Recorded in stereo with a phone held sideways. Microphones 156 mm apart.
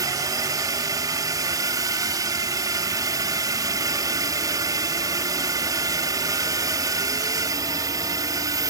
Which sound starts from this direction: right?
A drone, at 0.0 s.